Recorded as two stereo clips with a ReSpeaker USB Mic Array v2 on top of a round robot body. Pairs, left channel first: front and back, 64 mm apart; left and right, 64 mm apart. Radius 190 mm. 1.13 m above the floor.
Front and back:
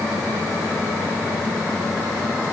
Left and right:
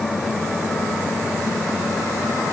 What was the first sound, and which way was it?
Only background noise.